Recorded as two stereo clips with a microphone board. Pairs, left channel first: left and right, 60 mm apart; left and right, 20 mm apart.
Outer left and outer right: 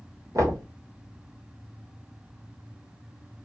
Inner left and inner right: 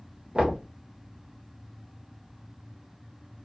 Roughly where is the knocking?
Right.